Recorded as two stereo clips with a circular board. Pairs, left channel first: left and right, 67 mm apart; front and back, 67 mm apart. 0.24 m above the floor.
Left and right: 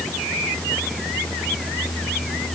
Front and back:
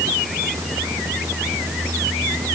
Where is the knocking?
No knocking in this recording.